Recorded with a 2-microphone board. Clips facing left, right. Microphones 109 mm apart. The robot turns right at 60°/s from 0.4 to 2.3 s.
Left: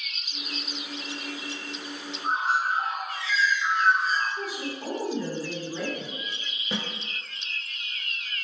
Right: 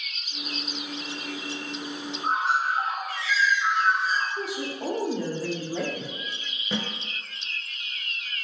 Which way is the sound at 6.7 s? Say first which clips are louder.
Right 2 dB; 5° left (ahead or behind).